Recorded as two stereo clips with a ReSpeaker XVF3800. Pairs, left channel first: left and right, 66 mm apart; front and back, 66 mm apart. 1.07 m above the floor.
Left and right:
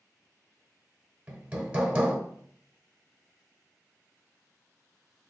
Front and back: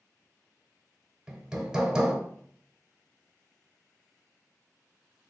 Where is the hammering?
120° right, 0.8 m.